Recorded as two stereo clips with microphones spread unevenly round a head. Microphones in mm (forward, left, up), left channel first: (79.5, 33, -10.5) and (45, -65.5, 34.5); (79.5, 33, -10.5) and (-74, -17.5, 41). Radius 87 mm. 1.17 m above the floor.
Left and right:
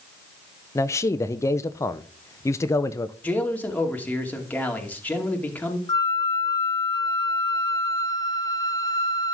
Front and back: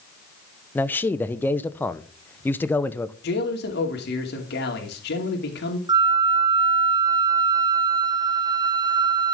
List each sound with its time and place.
0.8 s a man speaking: 75° left, 0.7 m
3.2 s a man speaking: 5° right, 2.5 m
5.9 s a flute: 125° left, 0.7 m